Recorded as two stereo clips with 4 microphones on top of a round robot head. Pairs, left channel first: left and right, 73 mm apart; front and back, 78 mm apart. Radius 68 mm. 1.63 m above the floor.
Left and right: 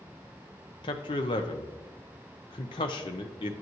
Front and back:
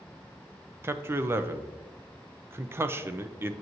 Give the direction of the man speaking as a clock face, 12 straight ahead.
8 o'clock.